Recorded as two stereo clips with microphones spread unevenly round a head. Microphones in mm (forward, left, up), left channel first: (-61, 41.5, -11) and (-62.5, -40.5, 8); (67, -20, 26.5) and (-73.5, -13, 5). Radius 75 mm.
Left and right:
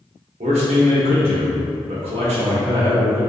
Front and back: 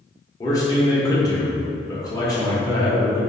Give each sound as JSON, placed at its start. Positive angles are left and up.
{"t": 0.4, "sound": "a man speaking", "azimuth_deg": -70, "distance_m": 0.8}